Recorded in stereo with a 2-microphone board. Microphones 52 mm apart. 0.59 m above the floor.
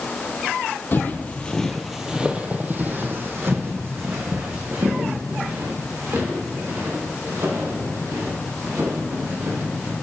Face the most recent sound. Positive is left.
turn(degrees=-70)  # may be behind; listen again after turning